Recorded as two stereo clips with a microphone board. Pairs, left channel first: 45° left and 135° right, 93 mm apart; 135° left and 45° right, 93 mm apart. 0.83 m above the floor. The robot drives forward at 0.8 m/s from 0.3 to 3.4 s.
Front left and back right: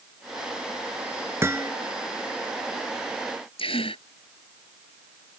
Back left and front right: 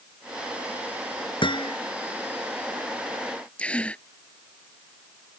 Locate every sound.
1.4 s hammering: 160° left
3.6 s a gasp: 60° left